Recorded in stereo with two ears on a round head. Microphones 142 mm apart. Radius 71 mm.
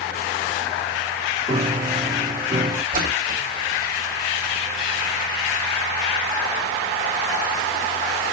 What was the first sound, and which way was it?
A piano, 25° right (ahead or behind).